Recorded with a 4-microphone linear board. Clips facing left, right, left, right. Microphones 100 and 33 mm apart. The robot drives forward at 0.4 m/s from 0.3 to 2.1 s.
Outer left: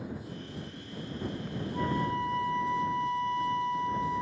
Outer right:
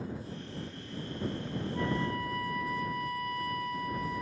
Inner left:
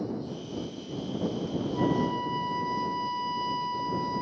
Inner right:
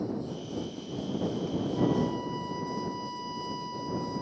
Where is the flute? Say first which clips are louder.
Outer left 3 dB, inner left 1 dB; 25° left (ahead or behind).